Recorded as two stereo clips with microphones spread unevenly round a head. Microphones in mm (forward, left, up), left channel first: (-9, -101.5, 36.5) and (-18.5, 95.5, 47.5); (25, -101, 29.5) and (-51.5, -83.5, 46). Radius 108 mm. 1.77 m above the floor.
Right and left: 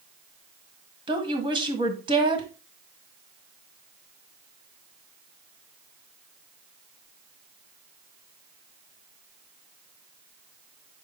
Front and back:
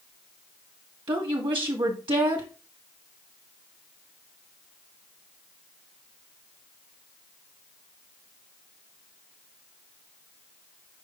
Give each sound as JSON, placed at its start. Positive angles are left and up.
{"t": 1.1, "sound": "a woman speaking", "azimuth_deg": 160, "distance_m": 1.7}